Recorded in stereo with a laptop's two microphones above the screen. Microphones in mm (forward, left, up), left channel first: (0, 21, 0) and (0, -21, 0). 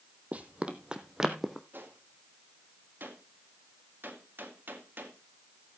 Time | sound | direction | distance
0.3 | running footsteps | 35° right (ahead or behind) | 1.4 m
1.7 | a gunshot | 60° right (ahead or behind) | 1.9 m